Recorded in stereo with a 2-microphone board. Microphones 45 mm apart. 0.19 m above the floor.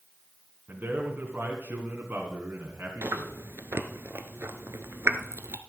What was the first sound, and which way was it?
A man speaking, 45° right (ahead or behind).